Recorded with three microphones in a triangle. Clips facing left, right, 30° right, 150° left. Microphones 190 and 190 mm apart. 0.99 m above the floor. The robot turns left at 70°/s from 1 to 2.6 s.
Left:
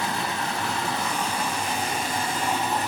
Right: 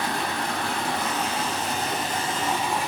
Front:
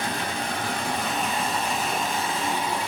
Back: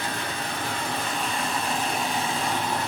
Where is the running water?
55° right, 3 m; by 2.9 s 170° right, 3 m.